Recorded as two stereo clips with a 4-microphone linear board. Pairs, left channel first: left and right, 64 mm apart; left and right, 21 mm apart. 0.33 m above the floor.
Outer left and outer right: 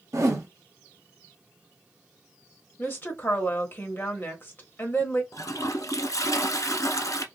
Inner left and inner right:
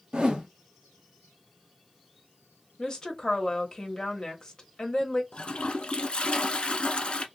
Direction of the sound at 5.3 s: 60° left (ahead or behind).